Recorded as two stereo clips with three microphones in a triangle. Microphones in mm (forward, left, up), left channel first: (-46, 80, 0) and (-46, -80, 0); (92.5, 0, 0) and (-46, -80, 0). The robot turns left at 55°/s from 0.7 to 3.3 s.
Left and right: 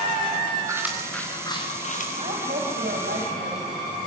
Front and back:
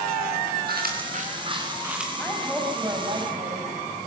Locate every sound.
0.7 s chewing: 160° right, 4 m; by 2.1 s 120° left, 4 m
2.2 s a woman speaking: 45° right, 4 m; by 3.7 s 105° right, 4 m